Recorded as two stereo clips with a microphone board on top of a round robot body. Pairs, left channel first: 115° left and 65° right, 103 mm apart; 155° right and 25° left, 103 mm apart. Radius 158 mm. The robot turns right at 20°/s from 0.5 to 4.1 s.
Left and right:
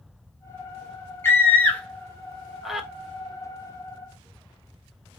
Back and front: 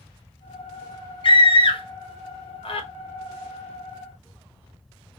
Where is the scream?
175° left, 1.3 m; by 2.9 s 150° right, 1.3 m.